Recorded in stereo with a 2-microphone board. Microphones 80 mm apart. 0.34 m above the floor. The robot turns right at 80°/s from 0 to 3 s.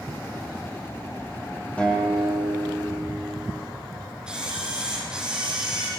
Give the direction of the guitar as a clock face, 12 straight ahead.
7 o'clock.